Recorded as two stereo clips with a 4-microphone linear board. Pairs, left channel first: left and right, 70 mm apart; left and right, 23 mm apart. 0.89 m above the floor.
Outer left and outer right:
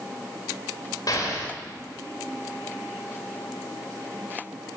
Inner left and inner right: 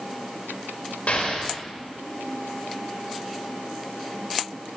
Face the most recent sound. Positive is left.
turn(degrees=65)  # may be behind; listen again after turning